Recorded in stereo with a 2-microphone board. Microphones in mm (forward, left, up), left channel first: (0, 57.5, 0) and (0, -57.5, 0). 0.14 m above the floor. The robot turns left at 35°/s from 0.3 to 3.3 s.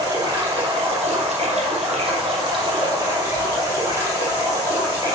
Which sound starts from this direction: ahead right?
Running water, at 0.0 s.